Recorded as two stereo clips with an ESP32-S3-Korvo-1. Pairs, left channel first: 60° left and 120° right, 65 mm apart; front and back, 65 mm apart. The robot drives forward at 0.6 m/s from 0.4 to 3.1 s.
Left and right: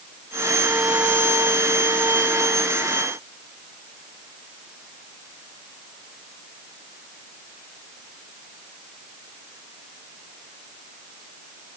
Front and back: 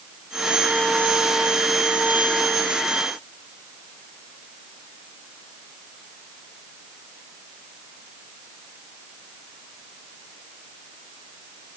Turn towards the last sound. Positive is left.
No sound to turn to.